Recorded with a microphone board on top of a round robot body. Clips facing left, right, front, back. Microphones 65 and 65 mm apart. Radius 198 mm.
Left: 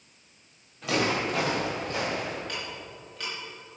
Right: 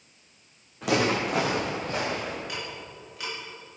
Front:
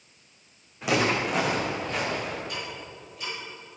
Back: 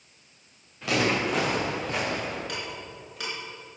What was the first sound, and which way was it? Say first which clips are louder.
Footsteps: right 2 dB, front 1 dB; 70° right.